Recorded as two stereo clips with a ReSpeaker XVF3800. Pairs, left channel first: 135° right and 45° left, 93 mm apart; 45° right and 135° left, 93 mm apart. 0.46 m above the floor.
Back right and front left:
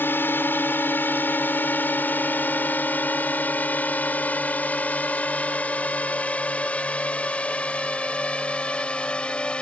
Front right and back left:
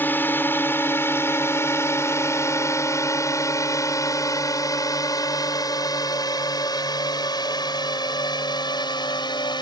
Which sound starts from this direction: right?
A drone, at 0.0 s.